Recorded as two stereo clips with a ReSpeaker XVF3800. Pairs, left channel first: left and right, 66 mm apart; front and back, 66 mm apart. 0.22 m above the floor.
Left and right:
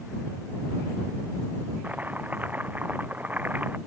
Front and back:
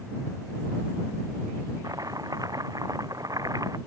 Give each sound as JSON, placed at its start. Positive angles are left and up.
{"t": 1.8, "sound": "chopping", "azimuth_deg": -155}